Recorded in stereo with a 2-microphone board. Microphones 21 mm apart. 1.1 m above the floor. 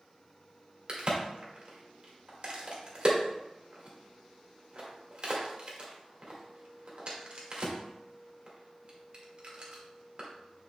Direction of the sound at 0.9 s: 45° right (ahead or behind).